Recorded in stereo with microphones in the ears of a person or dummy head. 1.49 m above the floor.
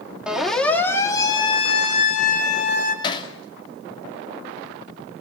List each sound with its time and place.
0.3 s a siren: 5° right (ahead or behind), 3 m; by 2.9 s 55° left (ahead or behind), 4.5 m
3.0 s hammering: 25° left (ahead or behind), 2.5 m